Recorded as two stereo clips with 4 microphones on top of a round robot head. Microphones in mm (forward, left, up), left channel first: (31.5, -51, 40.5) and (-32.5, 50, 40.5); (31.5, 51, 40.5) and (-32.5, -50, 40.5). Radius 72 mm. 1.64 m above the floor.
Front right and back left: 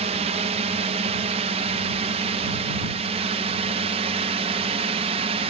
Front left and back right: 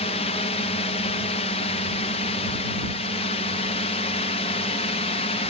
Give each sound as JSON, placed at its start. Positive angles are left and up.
{"t": 0.0, "sound": "a drone", "azimuth_deg": 90}